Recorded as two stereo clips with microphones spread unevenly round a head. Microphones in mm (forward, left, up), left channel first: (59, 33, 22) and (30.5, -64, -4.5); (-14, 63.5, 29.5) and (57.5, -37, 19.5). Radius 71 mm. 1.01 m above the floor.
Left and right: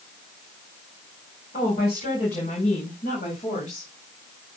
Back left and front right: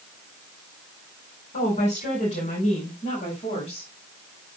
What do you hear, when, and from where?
1.5 s a woman speaking: 100° left, 5 m; by 3.9 s 85° left, 6 m